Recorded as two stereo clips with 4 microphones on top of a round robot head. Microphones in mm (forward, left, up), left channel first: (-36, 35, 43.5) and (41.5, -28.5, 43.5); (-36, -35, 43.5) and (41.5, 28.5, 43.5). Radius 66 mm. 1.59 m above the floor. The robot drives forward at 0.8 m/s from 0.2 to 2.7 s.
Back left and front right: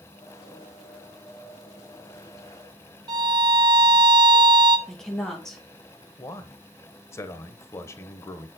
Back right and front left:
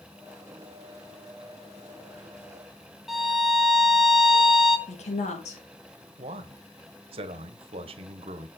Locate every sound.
3.1 s a violin: 45° right, 0.7 m
4.9 s a woman speaking: 135° right, 2.5 m
6.2 s a man speaking: 75° left, 1.3 m